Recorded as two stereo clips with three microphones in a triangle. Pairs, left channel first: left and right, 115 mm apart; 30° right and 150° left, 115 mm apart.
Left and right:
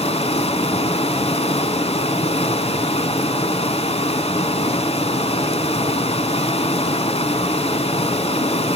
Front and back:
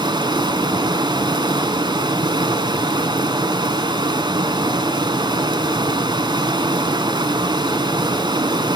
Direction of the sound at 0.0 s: 105° left.